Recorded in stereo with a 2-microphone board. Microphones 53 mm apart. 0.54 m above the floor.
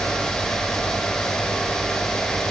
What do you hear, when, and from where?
Only background noise.